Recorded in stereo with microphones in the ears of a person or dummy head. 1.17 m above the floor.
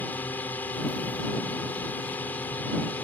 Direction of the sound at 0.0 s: 15° left (ahead or behind).